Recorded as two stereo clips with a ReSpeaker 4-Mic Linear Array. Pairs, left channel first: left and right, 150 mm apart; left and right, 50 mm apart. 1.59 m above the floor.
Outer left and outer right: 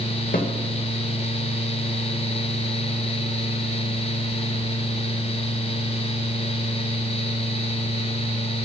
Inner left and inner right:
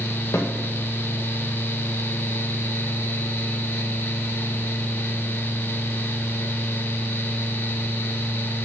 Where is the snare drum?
70° left (ahead or behind), 2.0 m.